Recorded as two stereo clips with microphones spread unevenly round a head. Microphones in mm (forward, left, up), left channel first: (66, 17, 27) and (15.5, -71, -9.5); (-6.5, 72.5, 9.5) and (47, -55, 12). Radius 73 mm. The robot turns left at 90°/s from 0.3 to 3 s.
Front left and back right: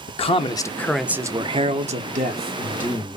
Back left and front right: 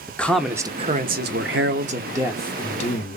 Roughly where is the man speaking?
Ahead left.